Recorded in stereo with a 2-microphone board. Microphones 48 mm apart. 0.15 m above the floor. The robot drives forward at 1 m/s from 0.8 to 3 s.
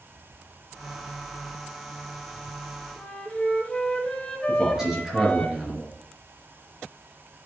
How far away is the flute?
About 1.1 m.